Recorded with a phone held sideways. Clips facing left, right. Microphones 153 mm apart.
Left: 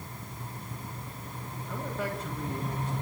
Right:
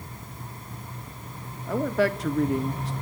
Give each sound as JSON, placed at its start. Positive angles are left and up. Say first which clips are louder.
{"t": 1.7, "sound": "a man speaking", "louder": "right 11 dB", "side_deg": -85, "distance_m": 1.8}